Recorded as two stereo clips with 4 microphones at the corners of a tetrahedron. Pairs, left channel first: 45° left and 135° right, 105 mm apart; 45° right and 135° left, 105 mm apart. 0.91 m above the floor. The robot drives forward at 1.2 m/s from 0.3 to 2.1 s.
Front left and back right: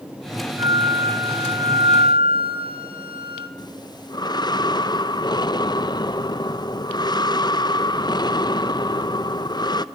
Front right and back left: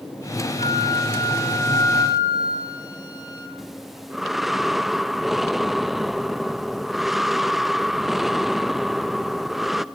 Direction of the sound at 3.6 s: 50° left.